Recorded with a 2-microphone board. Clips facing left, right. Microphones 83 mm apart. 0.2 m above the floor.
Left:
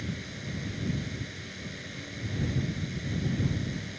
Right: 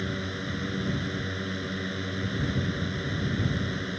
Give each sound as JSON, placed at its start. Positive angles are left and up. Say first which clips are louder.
{"t": 0.0, "sound": "a drone", "louder": "right 6 dB", "side_deg": -60}